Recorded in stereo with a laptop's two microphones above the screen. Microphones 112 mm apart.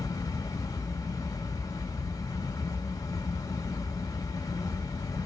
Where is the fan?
30° left (ahead or behind), 1.1 m.